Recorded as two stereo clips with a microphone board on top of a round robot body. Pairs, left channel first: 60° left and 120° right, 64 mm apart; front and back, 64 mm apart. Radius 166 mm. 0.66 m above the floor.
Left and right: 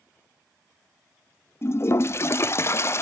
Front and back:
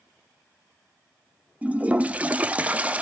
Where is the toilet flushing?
110° left, 0.7 m.